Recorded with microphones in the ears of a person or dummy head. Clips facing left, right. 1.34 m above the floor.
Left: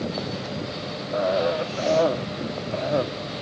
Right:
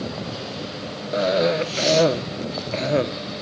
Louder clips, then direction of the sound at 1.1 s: Right 3 dB; 25° right (ahead or behind).